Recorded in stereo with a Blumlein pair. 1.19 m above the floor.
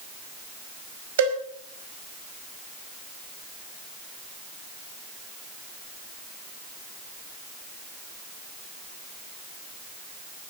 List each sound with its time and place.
1.2 s a cowbell: 60° right, 4.5 m